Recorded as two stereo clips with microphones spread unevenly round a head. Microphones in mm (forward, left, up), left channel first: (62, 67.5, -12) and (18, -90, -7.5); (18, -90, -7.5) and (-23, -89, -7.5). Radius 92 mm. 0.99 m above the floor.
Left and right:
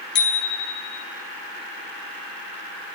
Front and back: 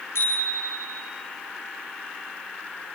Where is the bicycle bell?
60° left, 5.5 m.